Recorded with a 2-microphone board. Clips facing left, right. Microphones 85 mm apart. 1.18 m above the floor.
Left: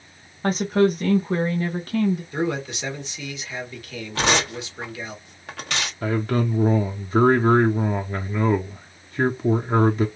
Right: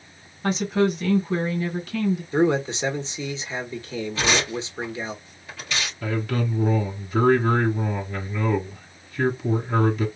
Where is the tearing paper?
70° left (ahead or behind), 1.5 m.